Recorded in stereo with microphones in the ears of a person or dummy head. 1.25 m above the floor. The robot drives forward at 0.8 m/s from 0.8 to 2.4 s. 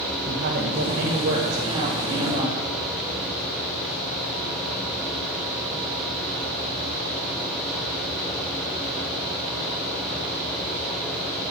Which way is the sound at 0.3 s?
45° right (ahead or behind).